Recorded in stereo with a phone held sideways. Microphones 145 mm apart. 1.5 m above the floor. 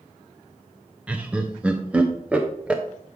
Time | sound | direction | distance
1.1 | laughter | 10° right (ahead or behind) | 0.6 m